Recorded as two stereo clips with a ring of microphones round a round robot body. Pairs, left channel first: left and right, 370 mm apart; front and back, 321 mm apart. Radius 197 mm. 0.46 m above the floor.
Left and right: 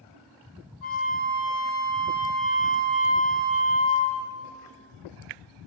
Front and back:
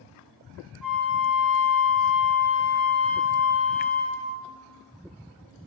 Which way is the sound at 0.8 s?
95° left.